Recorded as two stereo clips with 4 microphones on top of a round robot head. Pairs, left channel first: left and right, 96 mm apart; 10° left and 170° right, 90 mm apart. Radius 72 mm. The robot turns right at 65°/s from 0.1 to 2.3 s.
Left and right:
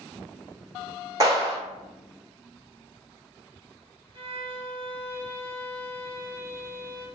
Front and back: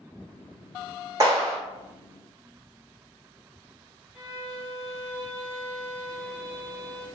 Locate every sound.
1.2 s a clap: 130° right, 1.3 m; by 1.6 s 105° right, 1.3 m
4.1 s a violin: 90° right, 1.1 m